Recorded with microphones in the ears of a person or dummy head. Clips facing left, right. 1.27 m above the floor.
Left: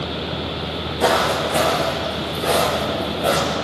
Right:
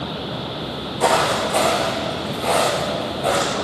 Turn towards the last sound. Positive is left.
turn(degrees=20)  # may be behind; listen again after turning